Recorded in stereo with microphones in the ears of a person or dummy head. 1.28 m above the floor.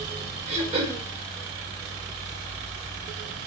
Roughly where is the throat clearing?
Right.